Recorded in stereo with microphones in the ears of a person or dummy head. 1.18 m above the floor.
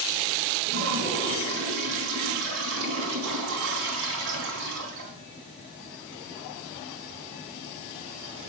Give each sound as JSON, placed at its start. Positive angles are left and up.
{"t": 0.7, "sound": "a toilet flushing", "side_deg": -65, "distance_m": 2.5}